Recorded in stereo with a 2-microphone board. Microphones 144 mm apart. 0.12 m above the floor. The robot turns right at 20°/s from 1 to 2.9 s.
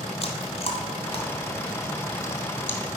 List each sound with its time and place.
0.2 s chewing: 40° left (ahead or behind), 1.4 m; by 2.8 s 10° left (ahead or behind), 1.4 m